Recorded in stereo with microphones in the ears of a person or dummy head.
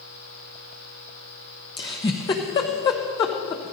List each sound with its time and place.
1.8 s a giggle: 15° left (ahead or behind), 0.7 m